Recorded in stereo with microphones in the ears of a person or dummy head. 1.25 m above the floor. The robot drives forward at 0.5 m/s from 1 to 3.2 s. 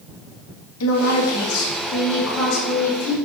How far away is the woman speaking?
About 1.4 m.